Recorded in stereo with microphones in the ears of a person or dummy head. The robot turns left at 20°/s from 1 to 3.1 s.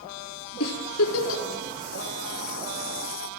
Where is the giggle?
80° left, 3.5 m; by 1.4 s 75° left (ahead or behind), 3.5 m.